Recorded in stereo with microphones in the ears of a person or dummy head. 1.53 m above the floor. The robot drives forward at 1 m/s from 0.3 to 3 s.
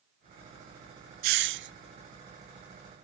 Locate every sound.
1.2 s a hiss: 45° right (ahead or behind), 0.5 m; by 1.7 s 50° right (ahead or behind), 0.5 m